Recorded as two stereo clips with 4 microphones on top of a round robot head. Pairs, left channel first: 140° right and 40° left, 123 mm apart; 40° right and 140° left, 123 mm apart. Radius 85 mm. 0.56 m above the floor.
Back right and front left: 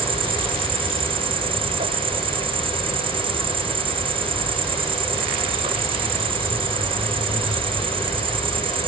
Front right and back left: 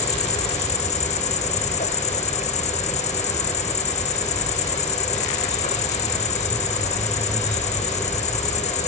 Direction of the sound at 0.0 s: 10° right.